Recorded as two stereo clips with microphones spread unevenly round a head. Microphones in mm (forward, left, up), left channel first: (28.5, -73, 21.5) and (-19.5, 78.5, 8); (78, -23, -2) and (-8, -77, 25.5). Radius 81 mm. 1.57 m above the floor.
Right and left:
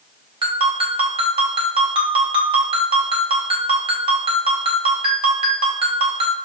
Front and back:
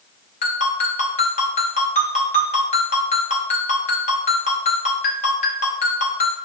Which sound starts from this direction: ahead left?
A ringtone, at 0.4 s.